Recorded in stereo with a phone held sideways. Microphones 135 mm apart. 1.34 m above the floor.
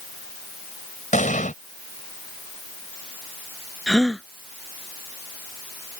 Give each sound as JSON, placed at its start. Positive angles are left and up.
{"t": 1.1, "sound": "an explosion", "side_deg": 65}
{"t": 3.9, "sound": "a gasp", "side_deg": 5}